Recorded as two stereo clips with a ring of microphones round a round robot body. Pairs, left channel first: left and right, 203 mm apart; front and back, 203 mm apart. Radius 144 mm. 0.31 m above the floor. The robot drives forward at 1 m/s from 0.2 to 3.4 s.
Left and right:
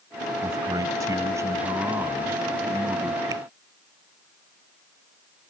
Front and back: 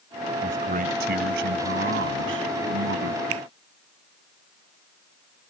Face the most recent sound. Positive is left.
turn(degrees=-170)